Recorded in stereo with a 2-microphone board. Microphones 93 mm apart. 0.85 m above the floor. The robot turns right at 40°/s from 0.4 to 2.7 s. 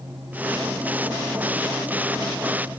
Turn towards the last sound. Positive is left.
No sound to turn to.